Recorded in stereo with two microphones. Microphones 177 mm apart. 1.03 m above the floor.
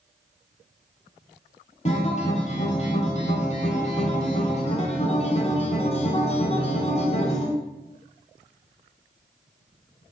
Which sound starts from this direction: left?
A guitar, at 1.9 s.